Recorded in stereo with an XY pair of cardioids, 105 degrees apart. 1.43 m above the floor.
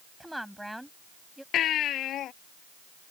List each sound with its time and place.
0.2 s a woman speaking: 5° right
1.5 s a baby crying: 70° left